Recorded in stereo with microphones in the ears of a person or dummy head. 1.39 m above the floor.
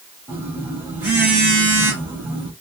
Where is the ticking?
I don't hear ticking.